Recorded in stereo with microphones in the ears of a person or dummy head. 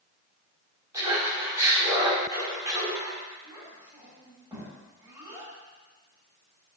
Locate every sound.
0.9 s laughter: 20° right (ahead or behind), 5 m
3.4 s a child speaking: 10° right (ahead or behind), 6 m